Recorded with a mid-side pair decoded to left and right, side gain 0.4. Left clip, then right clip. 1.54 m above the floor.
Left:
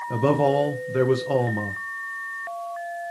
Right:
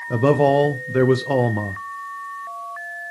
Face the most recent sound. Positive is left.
turn(degrees=-35)